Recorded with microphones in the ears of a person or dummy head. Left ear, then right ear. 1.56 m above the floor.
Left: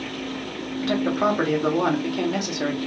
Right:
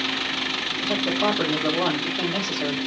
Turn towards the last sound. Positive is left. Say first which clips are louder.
# left 2 dB
turn(degrees=55)  # may be behind; listen again after turning